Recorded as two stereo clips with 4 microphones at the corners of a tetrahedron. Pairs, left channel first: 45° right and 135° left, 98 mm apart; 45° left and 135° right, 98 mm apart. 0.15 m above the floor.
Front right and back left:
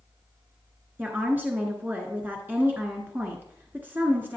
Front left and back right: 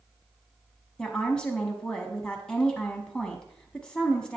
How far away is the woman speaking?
About 1.1 m.